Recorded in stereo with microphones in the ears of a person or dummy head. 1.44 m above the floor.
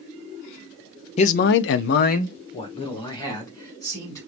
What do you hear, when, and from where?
1.2 s a man speaking: 35° left (ahead or behind), 0.6 m; by 4.2 s 15° left (ahead or behind), 2.5 m